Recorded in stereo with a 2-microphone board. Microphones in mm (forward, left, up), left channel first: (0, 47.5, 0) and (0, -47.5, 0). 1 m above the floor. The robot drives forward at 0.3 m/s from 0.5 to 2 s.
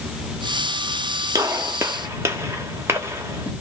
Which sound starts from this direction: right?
A gunshot, at 1.4 s.